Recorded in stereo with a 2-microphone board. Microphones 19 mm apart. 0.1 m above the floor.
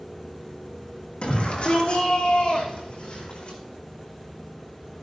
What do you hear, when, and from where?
1.2 s a shout: 70° left (ahead or behind), 5.5 m